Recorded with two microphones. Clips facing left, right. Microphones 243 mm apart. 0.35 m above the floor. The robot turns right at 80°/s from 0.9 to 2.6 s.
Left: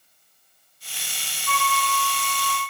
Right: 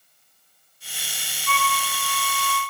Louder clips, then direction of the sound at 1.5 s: Left 1 dB; 15° left.